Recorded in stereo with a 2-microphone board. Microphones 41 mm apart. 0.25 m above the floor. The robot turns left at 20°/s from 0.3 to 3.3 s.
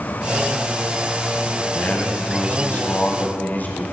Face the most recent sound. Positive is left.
turn(degrees=95)